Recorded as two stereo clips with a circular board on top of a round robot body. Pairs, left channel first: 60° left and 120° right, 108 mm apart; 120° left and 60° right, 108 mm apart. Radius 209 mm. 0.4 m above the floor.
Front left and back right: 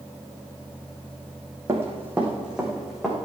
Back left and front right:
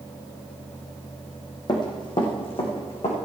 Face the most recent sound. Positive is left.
turn(degrees=150)